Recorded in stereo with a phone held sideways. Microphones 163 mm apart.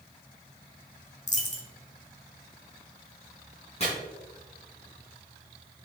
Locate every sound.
1.3 s a dropped coin: 45° left (ahead or behind), 1.2 m
3.8 s chopping: 40° left (ahead or behind), 3 m